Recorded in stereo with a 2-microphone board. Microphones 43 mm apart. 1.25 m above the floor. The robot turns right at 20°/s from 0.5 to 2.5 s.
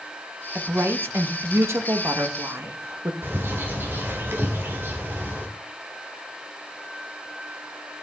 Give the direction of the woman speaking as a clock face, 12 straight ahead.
4 o'clock.